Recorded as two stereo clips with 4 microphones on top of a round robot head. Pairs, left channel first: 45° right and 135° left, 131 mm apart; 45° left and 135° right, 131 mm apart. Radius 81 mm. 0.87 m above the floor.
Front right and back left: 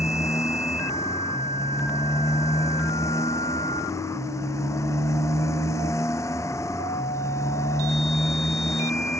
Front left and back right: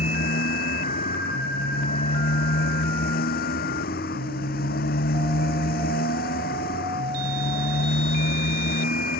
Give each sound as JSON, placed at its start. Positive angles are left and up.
{"t": 0.0, "sound": "a motorcycle", "azimuth_deg": 25}